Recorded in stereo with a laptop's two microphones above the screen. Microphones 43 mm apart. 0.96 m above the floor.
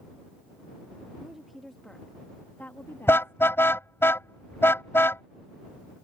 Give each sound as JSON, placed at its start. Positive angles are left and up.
{"t": 1.2, "sound": "a woman speaking", "side_deg": -10}
{"t": 3.1, "sound": "a car horn", "side_deg": 65}